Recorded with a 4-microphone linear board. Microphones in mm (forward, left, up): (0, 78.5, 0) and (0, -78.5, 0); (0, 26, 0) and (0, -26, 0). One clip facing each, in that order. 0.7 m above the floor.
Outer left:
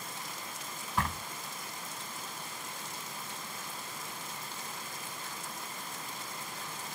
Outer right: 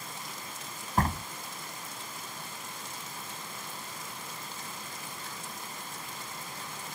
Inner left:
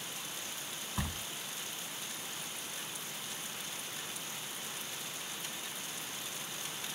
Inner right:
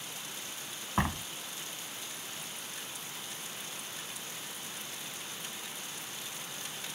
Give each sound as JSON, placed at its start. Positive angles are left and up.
{"t": 1.0, "sound": "a door slam", "side_deg": -45}